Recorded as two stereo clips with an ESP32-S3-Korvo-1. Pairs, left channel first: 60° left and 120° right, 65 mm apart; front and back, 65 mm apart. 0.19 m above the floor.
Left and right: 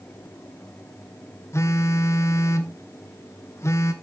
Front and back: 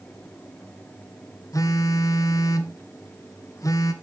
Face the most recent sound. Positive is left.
turn(degrees=20)